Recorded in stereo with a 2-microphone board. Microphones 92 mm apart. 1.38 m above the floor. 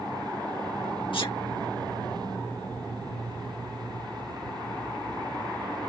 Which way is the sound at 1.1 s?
65° left (ahead or behind).